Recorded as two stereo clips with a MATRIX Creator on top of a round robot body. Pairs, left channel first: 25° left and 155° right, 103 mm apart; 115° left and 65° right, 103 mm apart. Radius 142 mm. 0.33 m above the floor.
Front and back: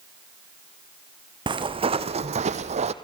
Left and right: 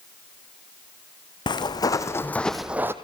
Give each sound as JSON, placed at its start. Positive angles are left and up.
{"t": 1.5, "sound": "footsteps", "azimuth_deg": 160, "distance_m": 2.0}